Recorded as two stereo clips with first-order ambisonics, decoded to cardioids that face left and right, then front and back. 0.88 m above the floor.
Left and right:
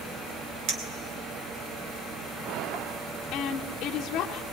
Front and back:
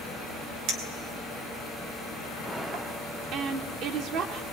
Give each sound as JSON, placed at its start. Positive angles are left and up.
{"t": 0.7, "sound": "a clink", "azimuth_deg": -140, "distance_m": 2.5}
{"t": 3.3, "sound": "a woman speaking", "azimuth_deg": 140, "distance_m": 1.7}